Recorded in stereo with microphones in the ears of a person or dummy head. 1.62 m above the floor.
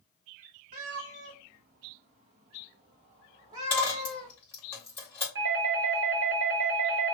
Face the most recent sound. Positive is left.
turn(degrees=-65)  # may be behind; listen again after turning